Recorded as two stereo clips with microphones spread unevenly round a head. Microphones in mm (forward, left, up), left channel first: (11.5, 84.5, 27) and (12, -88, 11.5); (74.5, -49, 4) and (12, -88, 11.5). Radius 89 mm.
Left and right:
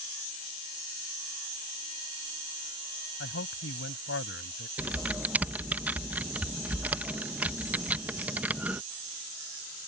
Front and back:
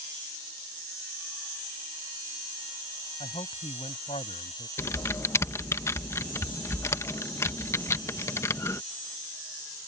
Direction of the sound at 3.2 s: 70° left.